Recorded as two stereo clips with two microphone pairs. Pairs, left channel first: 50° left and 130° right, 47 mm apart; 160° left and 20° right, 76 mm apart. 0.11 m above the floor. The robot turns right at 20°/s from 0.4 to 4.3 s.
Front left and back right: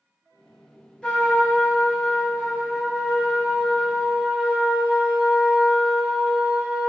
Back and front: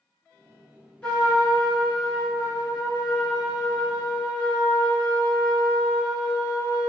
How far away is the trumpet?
About 1.4 m.